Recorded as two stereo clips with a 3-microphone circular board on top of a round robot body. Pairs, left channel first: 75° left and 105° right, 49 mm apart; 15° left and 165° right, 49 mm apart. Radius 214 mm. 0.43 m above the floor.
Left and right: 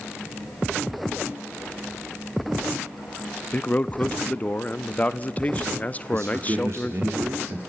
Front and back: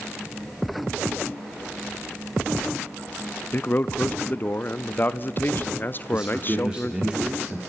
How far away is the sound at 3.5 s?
About 0.9 m.